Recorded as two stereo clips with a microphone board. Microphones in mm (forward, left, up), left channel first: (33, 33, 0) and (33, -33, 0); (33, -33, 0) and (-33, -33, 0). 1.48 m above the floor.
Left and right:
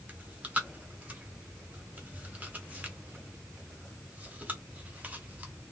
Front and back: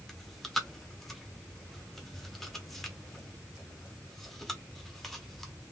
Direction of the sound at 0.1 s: 80° right.